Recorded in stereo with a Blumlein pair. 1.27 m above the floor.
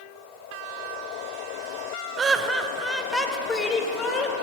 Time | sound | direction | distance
2.2 | laughter | 20° right | 0.8 m